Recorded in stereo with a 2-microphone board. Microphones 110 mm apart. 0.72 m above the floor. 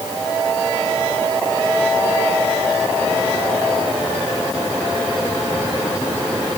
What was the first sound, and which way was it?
Only background noise.